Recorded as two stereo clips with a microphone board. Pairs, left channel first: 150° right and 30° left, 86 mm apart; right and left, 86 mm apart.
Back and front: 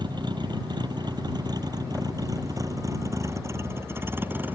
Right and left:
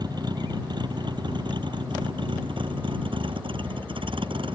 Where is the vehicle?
55° left; by 4.6 s 100° left.